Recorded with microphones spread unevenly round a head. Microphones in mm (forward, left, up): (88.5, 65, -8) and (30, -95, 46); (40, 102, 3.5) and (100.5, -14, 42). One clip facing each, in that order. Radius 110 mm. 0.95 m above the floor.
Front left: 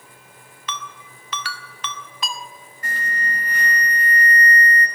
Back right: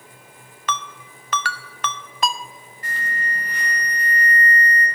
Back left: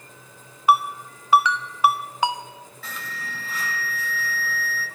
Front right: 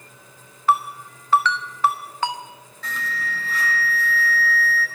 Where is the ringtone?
170° right, 0.5 m.